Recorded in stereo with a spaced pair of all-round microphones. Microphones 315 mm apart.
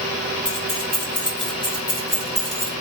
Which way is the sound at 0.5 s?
85° left.